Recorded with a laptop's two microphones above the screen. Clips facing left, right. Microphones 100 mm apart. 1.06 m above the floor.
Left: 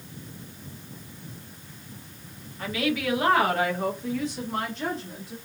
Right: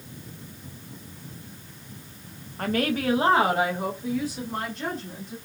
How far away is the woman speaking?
About 0.6 m.